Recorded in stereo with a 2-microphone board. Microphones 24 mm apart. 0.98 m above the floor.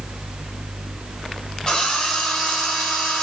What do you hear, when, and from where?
1.7 s a drill: 30° left (ahead or behind), 5 m